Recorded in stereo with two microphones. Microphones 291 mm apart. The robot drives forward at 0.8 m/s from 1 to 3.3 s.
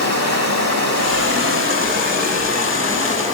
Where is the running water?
60° right (ahead or behind), 1.2 m; by 3.4 s 25° right (ahead or behind), 2.5 m.